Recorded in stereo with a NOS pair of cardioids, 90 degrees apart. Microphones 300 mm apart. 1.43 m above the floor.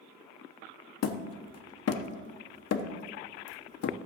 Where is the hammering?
55° left, 0.9 m.